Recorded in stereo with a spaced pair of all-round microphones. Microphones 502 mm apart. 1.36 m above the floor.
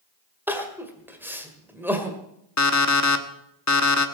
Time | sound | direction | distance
0.5 | crying | 5° right (ahead or behind) | 1.8 m
2.6 | an alarm clock | 30° left (ahead or behind) | 1.1 m